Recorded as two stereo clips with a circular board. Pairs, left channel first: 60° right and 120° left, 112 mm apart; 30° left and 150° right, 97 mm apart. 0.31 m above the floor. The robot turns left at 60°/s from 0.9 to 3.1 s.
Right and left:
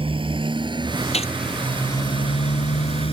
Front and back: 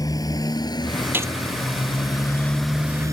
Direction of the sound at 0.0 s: 80° left.